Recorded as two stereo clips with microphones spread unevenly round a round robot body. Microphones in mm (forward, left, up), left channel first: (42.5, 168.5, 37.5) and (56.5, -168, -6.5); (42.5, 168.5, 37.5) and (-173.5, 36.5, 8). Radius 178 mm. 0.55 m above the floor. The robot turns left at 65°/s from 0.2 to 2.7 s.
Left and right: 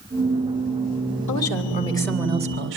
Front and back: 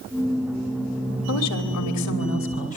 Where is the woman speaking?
55° left, 3 m; by 2.8 s 40° right, 3 m.